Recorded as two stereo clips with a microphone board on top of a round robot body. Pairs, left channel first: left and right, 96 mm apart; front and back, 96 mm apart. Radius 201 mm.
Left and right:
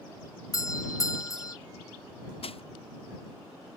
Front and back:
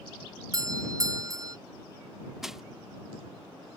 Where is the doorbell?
135° left.